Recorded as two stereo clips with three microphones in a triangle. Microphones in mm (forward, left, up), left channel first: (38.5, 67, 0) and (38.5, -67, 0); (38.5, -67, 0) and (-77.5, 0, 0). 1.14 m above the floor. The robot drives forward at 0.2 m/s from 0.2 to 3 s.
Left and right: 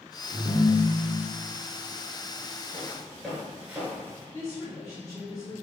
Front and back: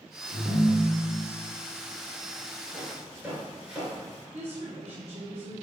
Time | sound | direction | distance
0.3 | a ringtone | 95° left | 1.1 m
2.7 | footsteps | 145° left | 1.1 m
4.3 | a woman speaking | 150° left | 0.6 m